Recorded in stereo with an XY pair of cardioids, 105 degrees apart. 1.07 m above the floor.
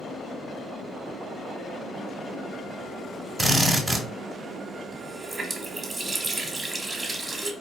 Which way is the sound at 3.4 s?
15° right.